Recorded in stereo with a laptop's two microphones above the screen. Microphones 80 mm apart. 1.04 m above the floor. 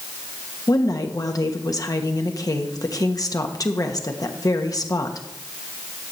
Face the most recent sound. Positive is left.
turn(degrees=50)  # may be behind; listen again after turning